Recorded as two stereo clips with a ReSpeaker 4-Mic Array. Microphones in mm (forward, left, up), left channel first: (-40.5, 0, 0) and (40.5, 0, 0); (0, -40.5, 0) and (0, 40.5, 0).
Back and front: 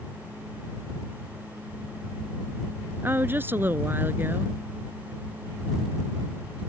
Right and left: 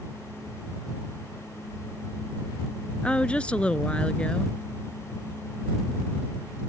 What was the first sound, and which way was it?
A woman speaking, 30° right.